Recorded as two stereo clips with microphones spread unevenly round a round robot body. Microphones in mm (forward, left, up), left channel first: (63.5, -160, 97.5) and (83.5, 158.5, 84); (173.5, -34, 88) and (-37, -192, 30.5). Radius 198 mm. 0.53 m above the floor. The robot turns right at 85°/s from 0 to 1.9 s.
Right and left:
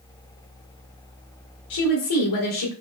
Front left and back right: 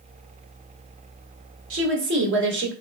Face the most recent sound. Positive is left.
turn(degrees=-110)